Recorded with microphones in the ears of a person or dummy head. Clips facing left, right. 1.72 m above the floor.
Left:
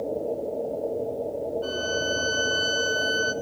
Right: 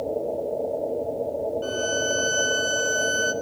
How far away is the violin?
About 1.0 m.